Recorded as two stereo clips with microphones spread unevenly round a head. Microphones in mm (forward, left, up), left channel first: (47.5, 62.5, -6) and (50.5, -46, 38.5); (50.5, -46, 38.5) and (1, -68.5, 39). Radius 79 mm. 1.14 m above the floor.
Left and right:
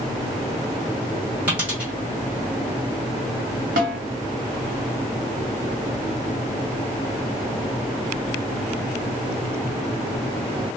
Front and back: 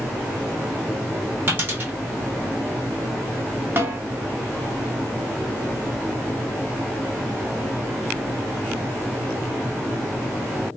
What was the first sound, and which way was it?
A dropped coin, 135° right.